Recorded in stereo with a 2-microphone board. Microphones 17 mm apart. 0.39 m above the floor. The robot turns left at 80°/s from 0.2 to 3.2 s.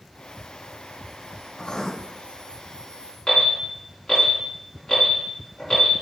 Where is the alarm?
70° left (ahead or behind), 3 m.